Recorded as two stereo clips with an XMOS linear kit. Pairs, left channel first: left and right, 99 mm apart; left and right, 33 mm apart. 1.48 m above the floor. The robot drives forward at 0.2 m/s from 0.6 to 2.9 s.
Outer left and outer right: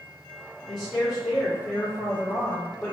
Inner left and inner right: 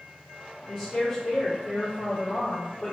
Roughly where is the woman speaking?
Centre.